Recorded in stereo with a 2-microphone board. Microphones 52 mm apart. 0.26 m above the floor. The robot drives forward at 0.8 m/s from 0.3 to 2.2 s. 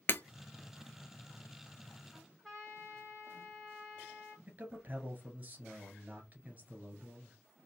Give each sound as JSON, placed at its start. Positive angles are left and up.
{"t": 0.1, "sound": "breaking glass", "side_deg": 35, "distance_m": 0.6}
{"t": 2.1, "sound": "a trumpet", "side_deg": -10, "distance_m": 2.5}
{"t": 4.5, "sound": "a man speaking", "side_deg": -30, "distance_m": 1.8}